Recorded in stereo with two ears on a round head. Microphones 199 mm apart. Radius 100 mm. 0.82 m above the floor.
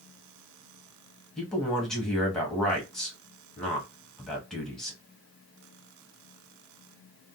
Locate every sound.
1.4 s a man speaking: 5° left (ahead or behind), 1.3 m